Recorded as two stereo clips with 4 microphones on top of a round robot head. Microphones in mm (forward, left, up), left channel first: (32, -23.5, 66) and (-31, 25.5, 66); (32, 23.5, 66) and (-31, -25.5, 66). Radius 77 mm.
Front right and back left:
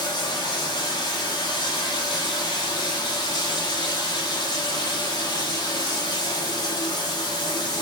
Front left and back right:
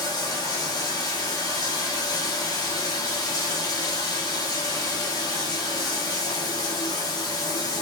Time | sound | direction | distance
0.0 | running water | 5° right | 1.4 m